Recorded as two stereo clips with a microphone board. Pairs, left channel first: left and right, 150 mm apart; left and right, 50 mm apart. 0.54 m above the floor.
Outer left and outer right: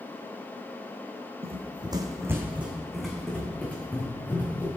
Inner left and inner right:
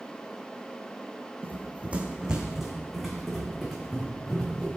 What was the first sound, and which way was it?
Running footsteps, 40° right (ahead or behind).